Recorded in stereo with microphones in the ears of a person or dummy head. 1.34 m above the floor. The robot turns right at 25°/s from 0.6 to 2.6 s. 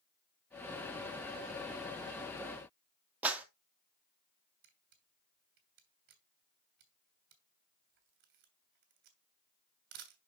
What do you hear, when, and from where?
3.2 s a clap: 10° right (ahead or behind), 1.1 m
4.6 s a camera shutter: 55° right (ahead or behind), 1.6 m